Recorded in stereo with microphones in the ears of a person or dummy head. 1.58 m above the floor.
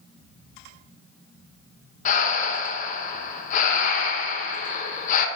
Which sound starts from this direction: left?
Breathing, at 2.0 s.